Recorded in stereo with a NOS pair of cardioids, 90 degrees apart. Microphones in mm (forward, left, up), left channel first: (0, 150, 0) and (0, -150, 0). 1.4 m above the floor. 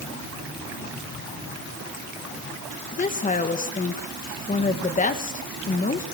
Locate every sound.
2.9 s a woman speaking: 25° left, 1.8 m